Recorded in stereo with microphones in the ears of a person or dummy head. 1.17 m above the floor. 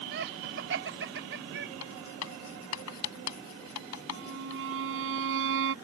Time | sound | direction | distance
0.1 | laughter | 60° right (ahead or behind) | ?
1.8 | writing | 80° left | ?
4.1 | a violin | 65° right (ahead or behind) | ?